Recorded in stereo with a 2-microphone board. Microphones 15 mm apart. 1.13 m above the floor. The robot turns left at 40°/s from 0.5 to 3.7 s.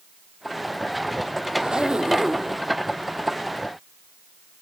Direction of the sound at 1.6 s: 105° right.